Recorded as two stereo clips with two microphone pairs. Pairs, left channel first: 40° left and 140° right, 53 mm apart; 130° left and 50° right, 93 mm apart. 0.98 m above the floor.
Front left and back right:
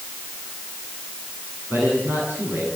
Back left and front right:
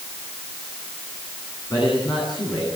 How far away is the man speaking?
About 8.5 m.